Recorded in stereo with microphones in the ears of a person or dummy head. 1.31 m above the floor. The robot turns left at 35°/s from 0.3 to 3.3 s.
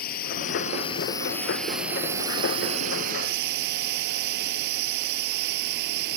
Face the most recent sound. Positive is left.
turn(degrees=-55)